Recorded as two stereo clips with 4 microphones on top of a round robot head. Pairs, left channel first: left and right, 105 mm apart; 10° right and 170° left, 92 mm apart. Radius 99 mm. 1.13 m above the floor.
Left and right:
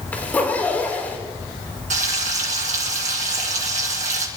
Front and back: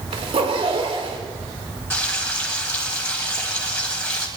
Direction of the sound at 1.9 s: 85° right.